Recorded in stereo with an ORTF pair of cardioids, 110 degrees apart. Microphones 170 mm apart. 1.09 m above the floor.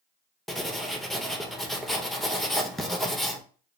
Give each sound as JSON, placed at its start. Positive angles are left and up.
{"t": 0.5, "sound": "writing", "azimuth_deg": 0, "distance_m": 0.7}